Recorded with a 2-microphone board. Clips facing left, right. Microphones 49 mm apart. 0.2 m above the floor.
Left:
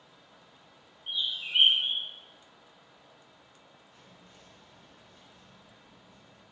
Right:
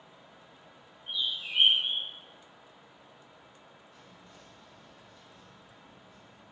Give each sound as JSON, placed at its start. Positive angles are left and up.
{"t": 1.1, "sound": "a bird", "side_deg": 70, "distance_m": 0.7}
{"t": 3.9, "sound": "whispering", "side_deg": 25, "distance_m": 1.6}